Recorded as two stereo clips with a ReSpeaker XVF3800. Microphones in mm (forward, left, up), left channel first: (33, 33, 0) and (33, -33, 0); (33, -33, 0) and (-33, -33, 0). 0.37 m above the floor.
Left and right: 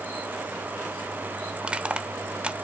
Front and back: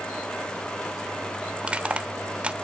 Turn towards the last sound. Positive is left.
turn(degrees=-135)